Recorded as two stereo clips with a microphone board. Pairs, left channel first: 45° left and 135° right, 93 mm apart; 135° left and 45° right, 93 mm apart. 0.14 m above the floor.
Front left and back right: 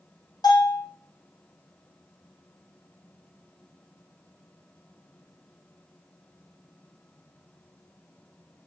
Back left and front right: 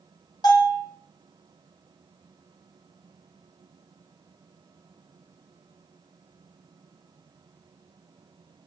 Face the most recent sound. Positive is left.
turn(degrees=90)